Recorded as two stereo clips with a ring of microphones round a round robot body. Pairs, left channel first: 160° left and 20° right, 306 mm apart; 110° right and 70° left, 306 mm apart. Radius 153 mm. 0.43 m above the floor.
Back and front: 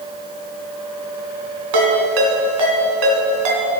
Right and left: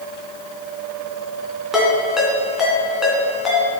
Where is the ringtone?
20° right, 3 m.